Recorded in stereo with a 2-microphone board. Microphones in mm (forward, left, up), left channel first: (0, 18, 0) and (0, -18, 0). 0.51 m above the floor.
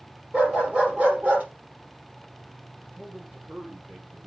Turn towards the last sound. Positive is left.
turn(degrees=-50)  # may be behind; listen again after turning